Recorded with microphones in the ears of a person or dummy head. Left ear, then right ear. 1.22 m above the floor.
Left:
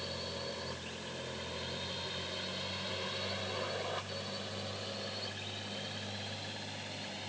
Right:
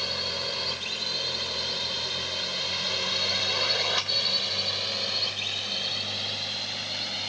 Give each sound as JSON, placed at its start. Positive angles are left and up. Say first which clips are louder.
{"t": 0.0, "sound": "a drone", "louder": "right 12 dB", "side_deg": -60}